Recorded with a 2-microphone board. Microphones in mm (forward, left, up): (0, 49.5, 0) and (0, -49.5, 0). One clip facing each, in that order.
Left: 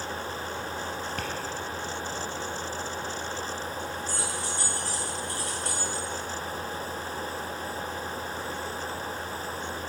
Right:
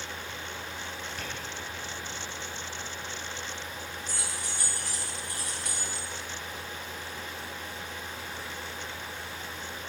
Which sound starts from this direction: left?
Tapping, at 1.2 s.